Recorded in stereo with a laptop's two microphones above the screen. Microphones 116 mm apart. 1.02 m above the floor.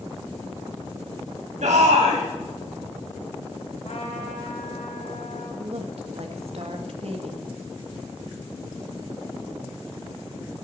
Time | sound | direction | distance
1.6 | a shout | 80° right | 5.5 m
3.8 | a trumpet | 85° left | 3.5 m
5.6 | a woman speaking | 60° right (ahead or behind) | 1.6 m